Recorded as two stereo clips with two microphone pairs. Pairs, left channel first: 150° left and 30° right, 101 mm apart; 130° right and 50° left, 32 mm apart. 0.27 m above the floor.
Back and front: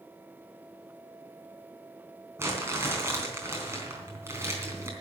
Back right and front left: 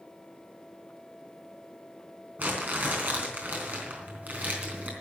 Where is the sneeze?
No sneeze in this recording.